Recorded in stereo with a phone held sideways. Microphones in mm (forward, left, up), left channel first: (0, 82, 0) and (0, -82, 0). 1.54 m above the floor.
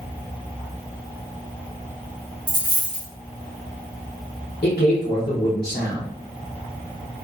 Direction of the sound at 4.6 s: 80° left.